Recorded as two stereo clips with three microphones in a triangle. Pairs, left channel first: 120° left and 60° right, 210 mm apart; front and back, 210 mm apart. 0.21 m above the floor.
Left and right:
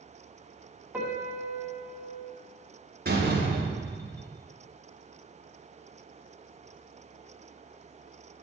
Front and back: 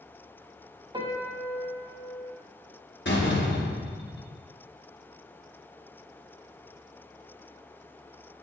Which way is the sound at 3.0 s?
25° right.